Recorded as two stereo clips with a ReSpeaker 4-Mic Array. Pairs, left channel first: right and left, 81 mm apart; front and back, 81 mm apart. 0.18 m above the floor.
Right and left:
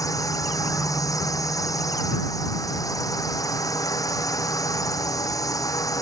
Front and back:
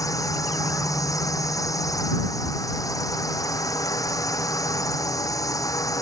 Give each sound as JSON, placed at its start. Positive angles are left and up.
{"t": 0.0, "sound": "a drone", "azimuth_deg": -45}